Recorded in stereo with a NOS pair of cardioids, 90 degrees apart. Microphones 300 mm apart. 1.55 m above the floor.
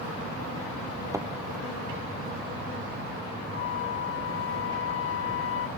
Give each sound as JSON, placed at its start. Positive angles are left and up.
{"t": 1.1, "sound": "a thud", "azimuth_deg": -10}
{"t": 3.5, "sound": "a flute", "azimuth_deg": 45}